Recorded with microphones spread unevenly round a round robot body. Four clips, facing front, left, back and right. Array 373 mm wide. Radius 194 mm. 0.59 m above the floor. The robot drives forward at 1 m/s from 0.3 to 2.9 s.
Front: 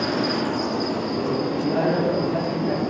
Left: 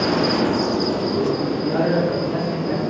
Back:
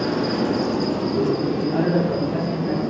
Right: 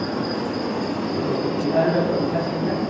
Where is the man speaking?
125° left, 2.5 m; by 2.8 s 145° left, 3.5 m.